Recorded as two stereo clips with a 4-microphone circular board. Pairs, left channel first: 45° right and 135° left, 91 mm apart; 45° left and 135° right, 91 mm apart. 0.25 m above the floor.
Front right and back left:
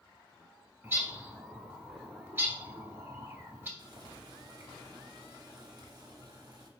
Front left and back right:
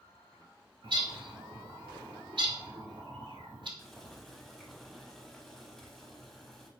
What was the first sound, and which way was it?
A bird, 160° right.